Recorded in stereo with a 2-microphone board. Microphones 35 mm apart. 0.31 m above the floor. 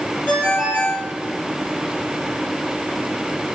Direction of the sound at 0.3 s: 35° left (ahead or behind).